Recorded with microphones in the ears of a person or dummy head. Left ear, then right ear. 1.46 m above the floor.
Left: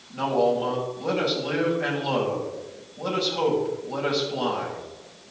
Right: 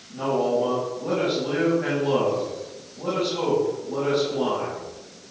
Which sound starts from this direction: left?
A man speaking, at 0.1 s.